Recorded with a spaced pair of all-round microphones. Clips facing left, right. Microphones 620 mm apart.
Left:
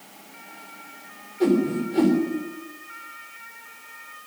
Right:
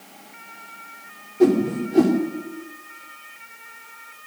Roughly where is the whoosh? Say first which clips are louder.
Right 3 dB; right.